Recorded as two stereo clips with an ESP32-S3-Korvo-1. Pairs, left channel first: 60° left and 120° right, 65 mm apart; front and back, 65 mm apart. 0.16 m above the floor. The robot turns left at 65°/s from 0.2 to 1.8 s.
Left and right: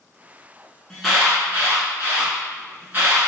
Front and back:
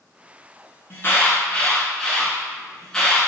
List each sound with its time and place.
0.9 s an alarm: 20° right, 1.3 m; by 3.2 s 80° right, 1.3 m